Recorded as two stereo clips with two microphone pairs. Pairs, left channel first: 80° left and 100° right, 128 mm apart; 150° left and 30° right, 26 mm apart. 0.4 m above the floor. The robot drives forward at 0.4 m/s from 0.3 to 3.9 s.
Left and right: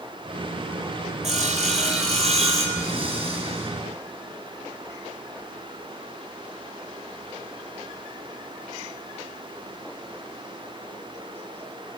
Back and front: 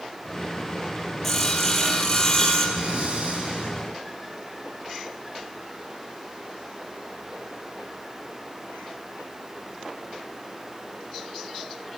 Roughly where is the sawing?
Behind right.